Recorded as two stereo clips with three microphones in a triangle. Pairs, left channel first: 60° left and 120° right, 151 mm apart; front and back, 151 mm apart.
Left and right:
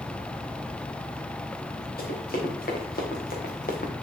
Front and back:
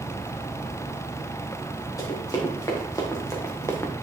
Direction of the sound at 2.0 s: 70° left.